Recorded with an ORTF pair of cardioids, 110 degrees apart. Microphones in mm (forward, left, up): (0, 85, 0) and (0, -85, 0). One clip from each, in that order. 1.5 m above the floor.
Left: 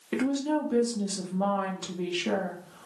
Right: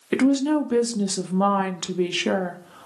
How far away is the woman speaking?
About 0.5 m.